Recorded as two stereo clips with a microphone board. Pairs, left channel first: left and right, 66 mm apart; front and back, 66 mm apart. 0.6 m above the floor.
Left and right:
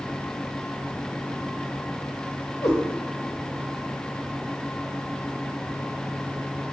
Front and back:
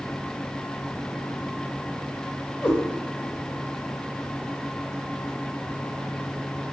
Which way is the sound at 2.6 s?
50° left.